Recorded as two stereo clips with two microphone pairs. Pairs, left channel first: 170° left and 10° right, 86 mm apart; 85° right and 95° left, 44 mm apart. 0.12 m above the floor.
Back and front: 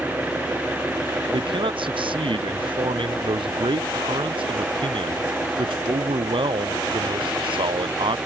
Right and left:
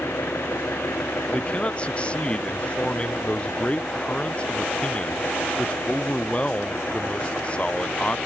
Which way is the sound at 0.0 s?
85° right.